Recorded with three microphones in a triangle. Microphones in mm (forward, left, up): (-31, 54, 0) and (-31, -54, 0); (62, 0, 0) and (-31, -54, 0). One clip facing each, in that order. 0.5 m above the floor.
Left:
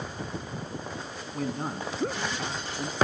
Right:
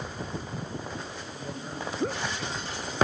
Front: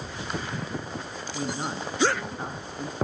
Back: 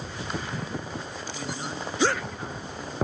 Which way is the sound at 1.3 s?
85° left.